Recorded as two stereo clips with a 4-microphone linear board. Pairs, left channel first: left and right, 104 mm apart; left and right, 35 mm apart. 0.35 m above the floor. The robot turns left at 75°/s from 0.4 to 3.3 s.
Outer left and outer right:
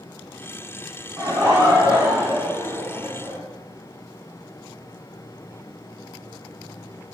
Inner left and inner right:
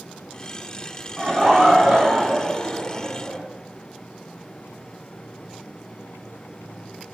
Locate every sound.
1.2 s laughter: 105° right, 1.9 m; by 3.4 s 90° left, 1.9 m